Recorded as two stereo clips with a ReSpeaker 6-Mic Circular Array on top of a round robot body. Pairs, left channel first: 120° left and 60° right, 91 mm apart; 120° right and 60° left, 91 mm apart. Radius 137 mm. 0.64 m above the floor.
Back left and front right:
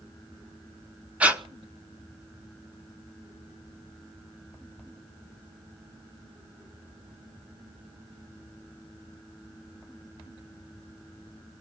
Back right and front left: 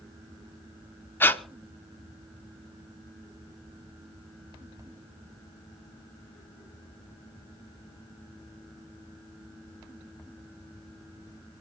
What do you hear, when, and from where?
1.2 s breathing: 110° right, 1.2 m